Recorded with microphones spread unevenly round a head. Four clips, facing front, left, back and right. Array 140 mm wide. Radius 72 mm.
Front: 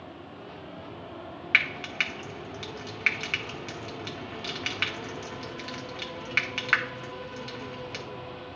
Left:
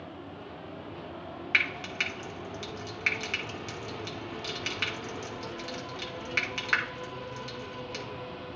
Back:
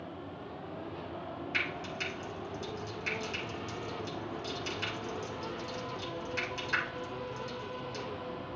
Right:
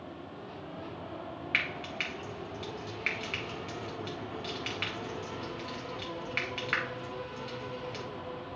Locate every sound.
1.5 s frying: 20° left, 1.8 m